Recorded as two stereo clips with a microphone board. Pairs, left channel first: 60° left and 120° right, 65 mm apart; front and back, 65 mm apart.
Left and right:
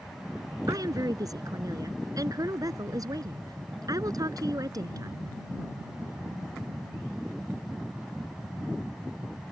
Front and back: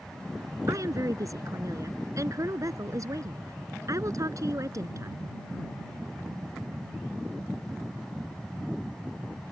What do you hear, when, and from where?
0.7 s a woman speaking: 145° right